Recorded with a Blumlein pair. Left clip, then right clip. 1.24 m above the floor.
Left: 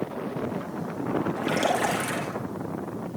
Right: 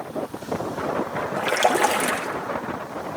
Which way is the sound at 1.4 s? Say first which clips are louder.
Right 7 dB; 30° right.